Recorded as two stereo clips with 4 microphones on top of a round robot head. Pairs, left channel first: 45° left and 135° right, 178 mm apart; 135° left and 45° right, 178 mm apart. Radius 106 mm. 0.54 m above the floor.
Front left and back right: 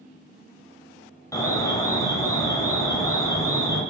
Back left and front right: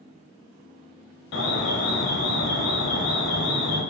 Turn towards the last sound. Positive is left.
turn(degrees=115)